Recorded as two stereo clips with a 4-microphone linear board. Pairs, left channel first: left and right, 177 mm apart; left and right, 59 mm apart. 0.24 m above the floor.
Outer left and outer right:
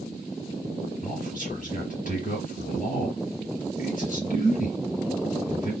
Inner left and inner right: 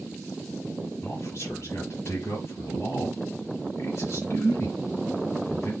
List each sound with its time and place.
1.0 s a man speaking: 50° left (ahead or behind), 4.5 m